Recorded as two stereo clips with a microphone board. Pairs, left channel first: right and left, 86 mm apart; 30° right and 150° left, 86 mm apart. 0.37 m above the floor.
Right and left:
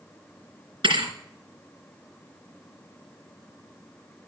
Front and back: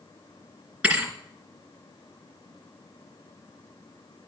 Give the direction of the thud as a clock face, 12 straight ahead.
9 o'clock.